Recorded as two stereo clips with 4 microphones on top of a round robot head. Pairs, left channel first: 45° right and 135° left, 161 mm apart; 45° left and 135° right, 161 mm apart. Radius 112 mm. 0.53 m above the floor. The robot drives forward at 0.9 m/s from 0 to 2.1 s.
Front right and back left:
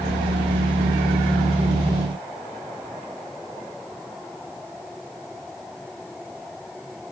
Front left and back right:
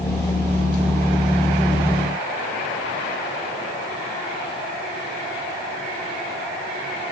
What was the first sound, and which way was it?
Only background noise.